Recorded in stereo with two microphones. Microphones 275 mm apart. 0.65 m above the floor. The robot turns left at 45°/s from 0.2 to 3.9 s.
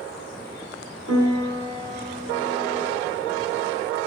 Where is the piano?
105° right, 1.4 m; by 2.9 s 175° left, 1.4 m.